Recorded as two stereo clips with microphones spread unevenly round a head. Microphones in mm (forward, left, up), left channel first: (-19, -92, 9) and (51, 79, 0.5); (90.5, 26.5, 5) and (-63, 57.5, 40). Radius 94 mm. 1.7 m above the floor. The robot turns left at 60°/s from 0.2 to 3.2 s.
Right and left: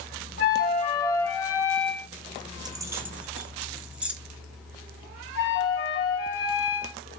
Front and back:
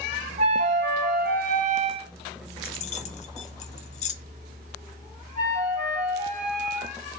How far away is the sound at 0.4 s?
About 1.0 m.